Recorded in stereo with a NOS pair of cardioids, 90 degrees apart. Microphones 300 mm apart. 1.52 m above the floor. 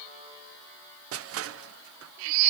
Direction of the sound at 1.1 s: 50° right.